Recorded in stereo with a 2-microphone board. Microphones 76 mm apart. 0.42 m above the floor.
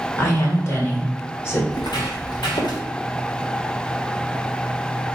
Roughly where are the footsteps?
Left.